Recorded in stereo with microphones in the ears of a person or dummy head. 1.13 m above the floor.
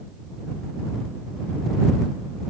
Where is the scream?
No scream in this recording.